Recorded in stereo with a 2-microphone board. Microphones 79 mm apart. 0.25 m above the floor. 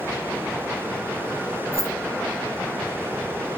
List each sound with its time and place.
1.7 s keys jangling: 35° left (ahead or behind), 2.5 m